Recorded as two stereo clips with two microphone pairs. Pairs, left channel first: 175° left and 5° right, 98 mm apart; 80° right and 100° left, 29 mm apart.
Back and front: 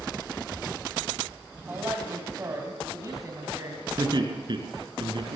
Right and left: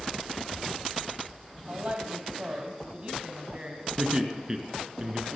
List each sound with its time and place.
1.7 s a woman speaking: 65° left, 2.5 m; by 3.9 s 45° left, 3.5 m
4.0 s laughter: 35° left, 4.5 m